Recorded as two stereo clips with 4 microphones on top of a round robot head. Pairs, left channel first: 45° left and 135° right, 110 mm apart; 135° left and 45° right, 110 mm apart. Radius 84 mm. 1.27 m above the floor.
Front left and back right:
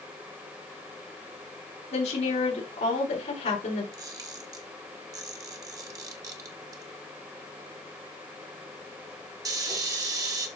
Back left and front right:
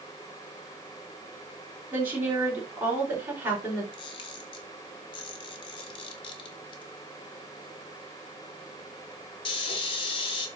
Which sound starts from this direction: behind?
A camera shutter, at 3.9 s.